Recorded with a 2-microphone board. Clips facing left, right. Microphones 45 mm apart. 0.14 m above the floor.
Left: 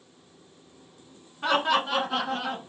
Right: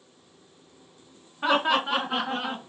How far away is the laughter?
About 1.2 m.